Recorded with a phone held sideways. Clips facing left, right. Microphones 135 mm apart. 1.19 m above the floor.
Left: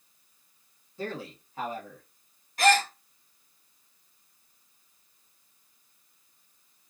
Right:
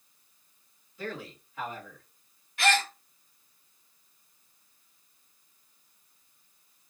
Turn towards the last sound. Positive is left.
turn(degrees=40)  # may be behind; listen again after turning